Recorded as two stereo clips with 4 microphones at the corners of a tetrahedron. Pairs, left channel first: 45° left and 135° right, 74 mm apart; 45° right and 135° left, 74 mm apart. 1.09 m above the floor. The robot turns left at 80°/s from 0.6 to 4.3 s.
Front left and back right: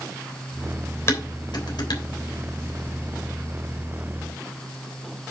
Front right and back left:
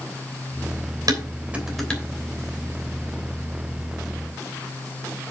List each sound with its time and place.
1.1 s dishes clattering: 100° left, 3 m; by 2.0 s 25° left, 3 m